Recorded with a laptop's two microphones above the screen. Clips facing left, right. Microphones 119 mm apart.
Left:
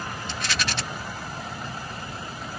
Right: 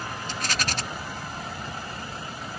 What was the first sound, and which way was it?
A rattle, 45° right (ahead or behind).